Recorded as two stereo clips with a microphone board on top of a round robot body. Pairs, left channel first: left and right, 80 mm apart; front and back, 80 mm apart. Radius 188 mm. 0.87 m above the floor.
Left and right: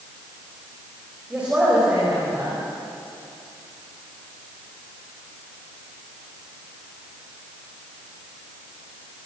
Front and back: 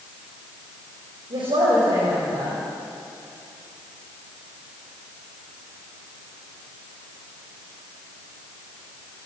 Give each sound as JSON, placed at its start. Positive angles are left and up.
{"t": 1.3, "sound": "a woman speaking", "azimuth_deg": -165, "distance_m": 5.5}